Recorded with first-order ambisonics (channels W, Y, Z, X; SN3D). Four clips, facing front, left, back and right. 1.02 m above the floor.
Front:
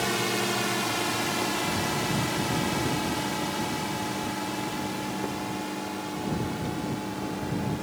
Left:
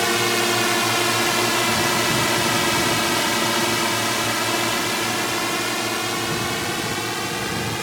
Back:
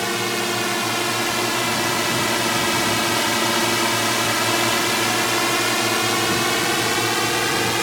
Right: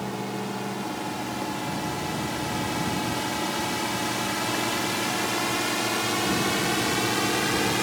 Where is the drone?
110° left; by 7.8 s 175° right.